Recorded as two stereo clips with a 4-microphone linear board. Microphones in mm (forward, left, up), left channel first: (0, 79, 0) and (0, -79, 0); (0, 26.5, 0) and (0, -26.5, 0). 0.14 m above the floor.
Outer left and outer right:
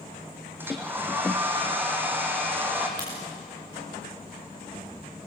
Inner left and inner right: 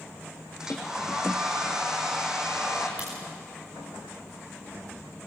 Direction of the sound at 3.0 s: 30° right (ahead or behind).